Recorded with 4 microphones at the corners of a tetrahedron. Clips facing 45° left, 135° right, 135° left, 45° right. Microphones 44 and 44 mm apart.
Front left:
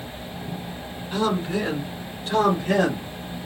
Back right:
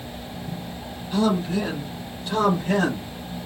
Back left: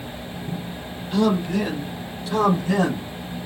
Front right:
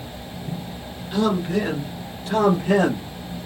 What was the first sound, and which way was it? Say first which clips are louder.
A man speaking: back right 2 dB, back left 1 dB; 10° left.